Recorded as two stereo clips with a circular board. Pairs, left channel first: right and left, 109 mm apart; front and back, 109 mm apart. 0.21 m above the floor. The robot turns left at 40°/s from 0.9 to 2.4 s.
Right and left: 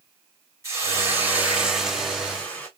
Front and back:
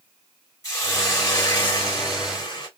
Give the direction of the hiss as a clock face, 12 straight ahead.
11 o'clock.